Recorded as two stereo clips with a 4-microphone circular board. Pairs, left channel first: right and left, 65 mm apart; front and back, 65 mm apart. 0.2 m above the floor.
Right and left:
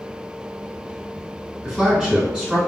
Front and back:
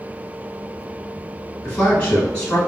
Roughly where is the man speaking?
Ahead left.